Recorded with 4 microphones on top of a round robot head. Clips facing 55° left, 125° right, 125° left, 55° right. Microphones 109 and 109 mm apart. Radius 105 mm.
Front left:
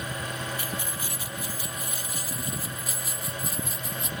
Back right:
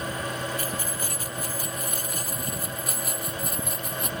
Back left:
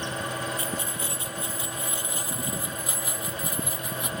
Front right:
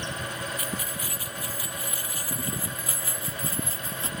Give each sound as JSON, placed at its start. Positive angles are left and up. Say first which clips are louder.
{"t": 0.6, "sound": "keys jangling", "louder": "back right 3 dB, back left 2 dB", "azimuth_deg": -175}